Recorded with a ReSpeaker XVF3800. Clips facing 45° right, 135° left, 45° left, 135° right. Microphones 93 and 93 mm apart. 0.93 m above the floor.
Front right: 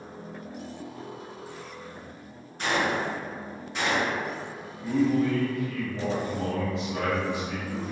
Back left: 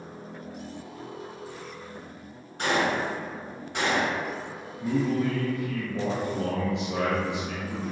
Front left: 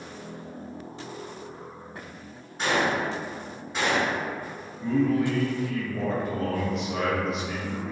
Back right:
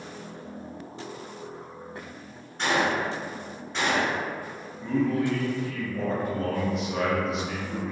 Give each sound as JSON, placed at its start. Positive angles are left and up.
{"t": 2.6, "sound": "a gunshot", "azimuth_deg": 130, "distance_m": 1.4}
{"t": 4.8, "sound": "a man speaking", "azimuth_deg": 135, "distance_m": 0.8}